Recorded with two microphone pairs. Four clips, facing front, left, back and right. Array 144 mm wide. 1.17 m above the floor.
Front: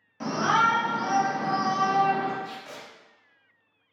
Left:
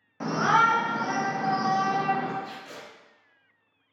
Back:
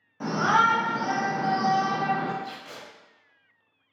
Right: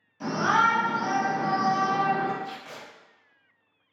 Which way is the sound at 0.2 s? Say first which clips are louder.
Left 1 dB, back 1 dB; 90° left.